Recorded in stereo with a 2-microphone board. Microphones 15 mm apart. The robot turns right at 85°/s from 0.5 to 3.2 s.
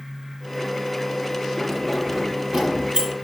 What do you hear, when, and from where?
1.6 s keys jangling: 25° left (ahead or behind), 6 m; by 3.1 s 75° right (ahead or behind), 6 m